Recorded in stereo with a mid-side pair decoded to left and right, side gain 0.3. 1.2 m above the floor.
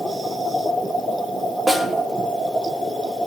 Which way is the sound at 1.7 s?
25° right.